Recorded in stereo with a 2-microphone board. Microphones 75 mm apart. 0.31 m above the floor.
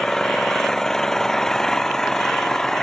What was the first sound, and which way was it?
An engine running, 5° left (ahead or behind).